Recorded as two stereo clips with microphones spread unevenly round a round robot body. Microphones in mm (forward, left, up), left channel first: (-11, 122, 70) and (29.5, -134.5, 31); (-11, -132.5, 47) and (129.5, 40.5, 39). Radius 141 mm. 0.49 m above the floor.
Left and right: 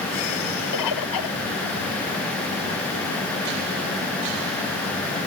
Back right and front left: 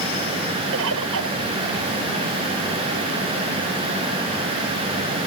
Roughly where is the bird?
Left.